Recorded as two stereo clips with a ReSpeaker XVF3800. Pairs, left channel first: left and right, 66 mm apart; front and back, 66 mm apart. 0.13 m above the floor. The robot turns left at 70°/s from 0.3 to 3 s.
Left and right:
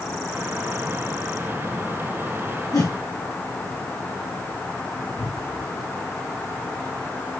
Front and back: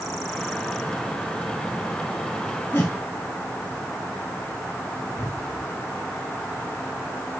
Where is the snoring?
I don't hear snoring.